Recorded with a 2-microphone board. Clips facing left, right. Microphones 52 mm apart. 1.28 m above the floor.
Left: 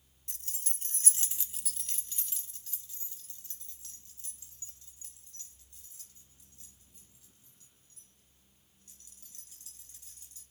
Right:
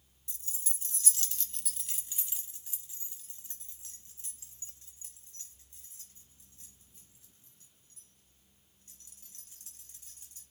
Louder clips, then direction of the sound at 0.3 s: Even; 55° left (ahead or behind).